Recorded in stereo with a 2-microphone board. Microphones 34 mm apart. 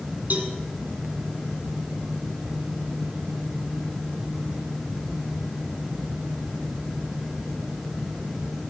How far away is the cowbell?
About 2 m.